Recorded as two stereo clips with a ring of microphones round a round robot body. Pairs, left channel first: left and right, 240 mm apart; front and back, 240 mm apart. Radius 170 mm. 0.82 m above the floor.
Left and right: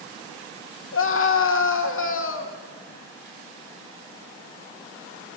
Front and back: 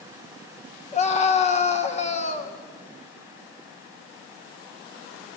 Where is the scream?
60° left, 2.5 m.